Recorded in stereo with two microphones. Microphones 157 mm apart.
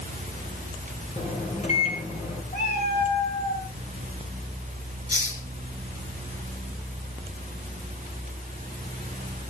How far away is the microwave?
About 6 m.